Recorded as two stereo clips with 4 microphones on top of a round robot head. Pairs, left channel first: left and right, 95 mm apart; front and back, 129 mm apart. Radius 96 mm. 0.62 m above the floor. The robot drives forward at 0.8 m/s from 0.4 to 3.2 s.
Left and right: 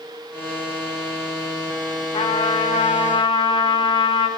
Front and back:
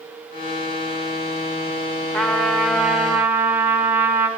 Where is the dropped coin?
I don't hear a dropped coin.